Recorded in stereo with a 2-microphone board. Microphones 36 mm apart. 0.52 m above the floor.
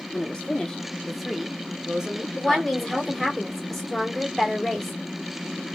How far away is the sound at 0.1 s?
About 0.7 m.